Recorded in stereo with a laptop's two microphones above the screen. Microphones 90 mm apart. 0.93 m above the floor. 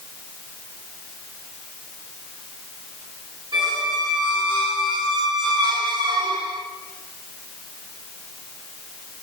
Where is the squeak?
50° right (ahead or behind), 2.5 m.